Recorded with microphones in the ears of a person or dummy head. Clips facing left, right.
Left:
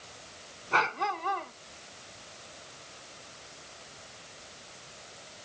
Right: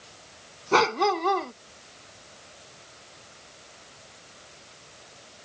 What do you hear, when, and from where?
0.7 s a dog barking: 70° right (ahead or behind)